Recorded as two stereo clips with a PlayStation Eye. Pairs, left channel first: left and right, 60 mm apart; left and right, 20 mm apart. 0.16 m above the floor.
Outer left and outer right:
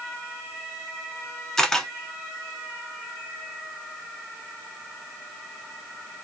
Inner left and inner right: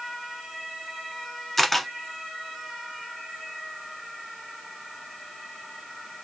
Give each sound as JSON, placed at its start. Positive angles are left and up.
{"t": 1.6, "sound": "a camera shutter", "side_deg": 10, "distance_m": 0.8}